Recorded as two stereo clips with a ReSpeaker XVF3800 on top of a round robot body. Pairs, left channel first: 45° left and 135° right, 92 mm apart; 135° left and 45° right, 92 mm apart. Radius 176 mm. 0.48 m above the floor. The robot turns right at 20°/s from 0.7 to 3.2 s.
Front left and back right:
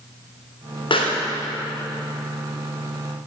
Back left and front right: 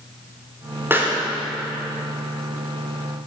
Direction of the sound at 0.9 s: 20° left.